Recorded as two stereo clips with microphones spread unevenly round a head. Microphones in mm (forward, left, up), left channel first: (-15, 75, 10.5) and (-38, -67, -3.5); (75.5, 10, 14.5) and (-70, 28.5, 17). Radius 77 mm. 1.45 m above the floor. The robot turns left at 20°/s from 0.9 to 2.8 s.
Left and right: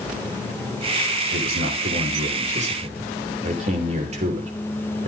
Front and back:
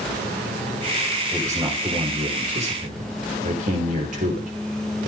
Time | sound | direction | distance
1.3 | a man speaking | 110° right | 5.5 m